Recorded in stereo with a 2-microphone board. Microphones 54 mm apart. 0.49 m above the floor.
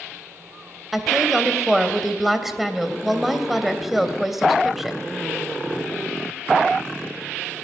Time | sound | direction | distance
0.9 | a woman speaking | centre (ahead or behind) | 2.5 m